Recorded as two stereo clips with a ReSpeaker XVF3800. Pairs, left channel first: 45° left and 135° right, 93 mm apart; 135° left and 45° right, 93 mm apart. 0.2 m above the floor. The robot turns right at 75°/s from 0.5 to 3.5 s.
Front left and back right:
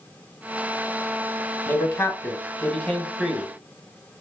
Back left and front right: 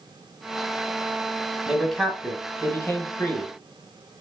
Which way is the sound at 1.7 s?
30° left.